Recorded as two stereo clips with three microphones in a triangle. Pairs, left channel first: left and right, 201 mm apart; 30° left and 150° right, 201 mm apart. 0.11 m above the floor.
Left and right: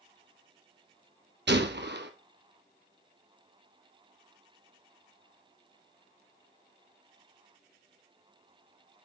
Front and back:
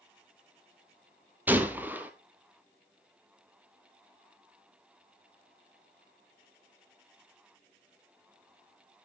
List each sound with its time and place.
1.5 s a gunshot: 70° right, 0.9 m